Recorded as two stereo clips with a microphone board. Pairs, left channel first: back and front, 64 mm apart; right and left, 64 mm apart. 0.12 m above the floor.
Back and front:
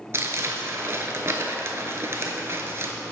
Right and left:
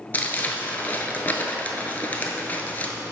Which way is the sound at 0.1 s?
35° right.